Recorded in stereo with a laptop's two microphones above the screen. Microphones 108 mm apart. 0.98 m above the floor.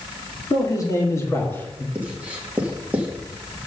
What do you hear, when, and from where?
0.5 s a man speaking: 35° left (ahead or behind), 1.9 m; by 1.9 s 10° left (ahead or behind), 1.4 m
1.9 s writing: 15° right (ahead or behind), 1.5 m